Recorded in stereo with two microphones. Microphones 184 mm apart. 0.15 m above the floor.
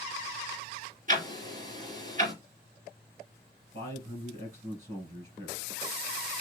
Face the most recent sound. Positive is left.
turn(degrees=-40)  # may be behind; listen again after turning